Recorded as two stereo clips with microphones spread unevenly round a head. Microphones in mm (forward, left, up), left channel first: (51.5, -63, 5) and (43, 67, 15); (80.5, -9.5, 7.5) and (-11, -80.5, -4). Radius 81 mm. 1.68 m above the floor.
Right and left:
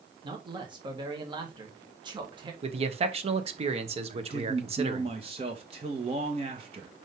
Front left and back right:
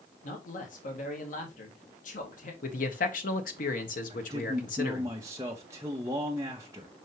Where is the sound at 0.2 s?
40° left, 1.9 m.